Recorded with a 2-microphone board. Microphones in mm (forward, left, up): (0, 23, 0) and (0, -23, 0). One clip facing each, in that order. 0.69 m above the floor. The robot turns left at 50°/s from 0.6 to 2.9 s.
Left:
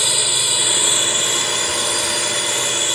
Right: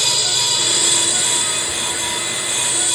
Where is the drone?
165° left; by 2.9 s 50° left.